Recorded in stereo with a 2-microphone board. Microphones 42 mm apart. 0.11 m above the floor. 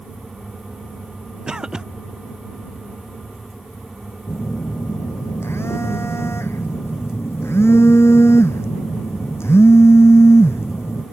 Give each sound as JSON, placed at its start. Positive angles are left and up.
{"t": 1.5, "sound": "a cough", "side_deg": -15}
{"t": 4.3, "sound": "a phone buzzing", "side_deg": 75}